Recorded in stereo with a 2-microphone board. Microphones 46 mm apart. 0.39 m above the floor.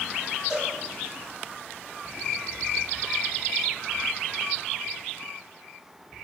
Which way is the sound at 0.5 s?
20° right (ahead or behind).